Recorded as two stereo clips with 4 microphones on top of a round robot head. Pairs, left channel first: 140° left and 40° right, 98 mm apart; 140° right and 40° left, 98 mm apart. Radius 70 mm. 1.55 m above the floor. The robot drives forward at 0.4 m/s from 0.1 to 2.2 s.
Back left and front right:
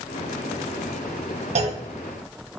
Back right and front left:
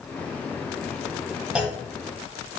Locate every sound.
1.6 s a clunk: 40° right, 1.5 m; by 1.8 s 45° right, 1.4 m